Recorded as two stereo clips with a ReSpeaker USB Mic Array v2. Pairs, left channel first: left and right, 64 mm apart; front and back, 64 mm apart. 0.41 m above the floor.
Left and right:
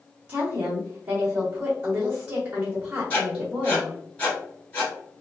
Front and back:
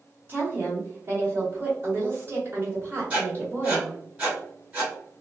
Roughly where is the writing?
Behind left.